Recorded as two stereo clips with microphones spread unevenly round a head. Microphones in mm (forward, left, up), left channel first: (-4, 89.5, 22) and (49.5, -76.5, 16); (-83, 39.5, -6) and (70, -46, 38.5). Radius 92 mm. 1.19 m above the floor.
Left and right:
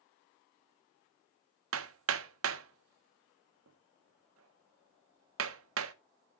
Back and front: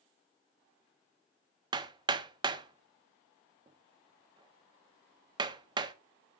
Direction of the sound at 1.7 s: 95° right.